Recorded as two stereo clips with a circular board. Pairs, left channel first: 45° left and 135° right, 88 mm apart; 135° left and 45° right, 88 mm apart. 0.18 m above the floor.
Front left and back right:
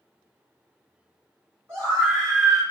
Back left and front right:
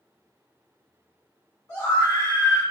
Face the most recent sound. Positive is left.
turn(degrees=175)